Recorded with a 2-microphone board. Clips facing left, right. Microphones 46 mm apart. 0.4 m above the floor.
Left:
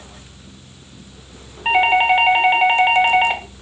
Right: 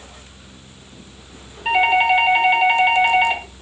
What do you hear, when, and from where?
1.6 s a doorbell: 20° left (ahead or behind), 1.2 m